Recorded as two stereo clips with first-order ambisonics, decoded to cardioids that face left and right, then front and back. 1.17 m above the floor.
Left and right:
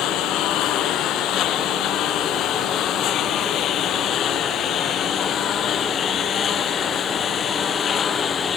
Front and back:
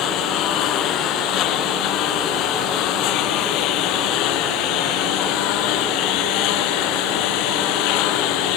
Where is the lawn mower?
50° left; by 8.6 s 25° left.